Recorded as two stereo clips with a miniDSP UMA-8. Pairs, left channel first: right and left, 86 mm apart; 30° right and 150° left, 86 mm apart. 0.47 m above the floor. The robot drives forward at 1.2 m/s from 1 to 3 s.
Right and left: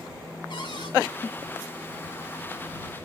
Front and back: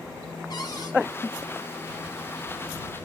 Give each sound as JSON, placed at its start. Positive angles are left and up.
{"t": 0.5, "sound": "a cupboard door", "azimuth_deg": -65, "distance_m": 3.0}